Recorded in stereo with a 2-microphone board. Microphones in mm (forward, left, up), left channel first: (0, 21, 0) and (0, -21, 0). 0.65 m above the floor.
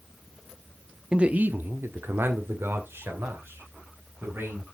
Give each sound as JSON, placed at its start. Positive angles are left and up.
{"t": 1.1, "sound": "a man speaking", "side_deg": -20, "distance_m": 0.6}